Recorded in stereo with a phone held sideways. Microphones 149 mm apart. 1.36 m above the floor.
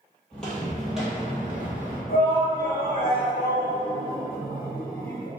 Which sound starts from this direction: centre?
Footsteps, at 0.3 s.